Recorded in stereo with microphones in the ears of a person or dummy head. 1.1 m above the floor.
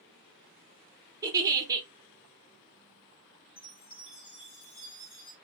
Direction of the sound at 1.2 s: 20° right (ahead or behind).